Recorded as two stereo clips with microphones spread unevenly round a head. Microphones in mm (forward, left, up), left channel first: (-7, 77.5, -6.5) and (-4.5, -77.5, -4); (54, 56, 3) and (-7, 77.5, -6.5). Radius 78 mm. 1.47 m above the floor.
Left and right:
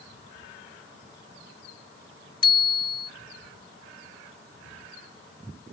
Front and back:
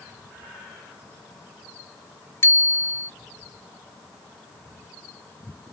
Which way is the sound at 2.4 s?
30° left.